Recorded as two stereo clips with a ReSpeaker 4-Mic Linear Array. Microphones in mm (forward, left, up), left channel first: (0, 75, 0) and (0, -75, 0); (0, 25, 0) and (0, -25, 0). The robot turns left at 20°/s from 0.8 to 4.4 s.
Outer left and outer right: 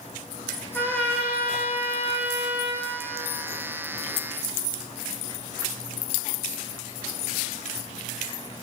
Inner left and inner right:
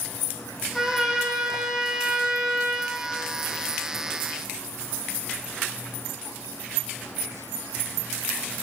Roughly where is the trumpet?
Ahead.